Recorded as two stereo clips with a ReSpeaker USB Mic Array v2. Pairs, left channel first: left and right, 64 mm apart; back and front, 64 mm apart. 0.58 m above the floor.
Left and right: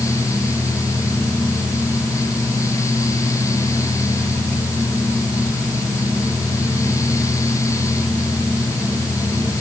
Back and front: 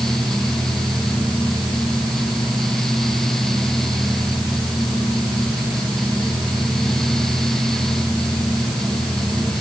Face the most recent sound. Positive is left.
No sound to turn to.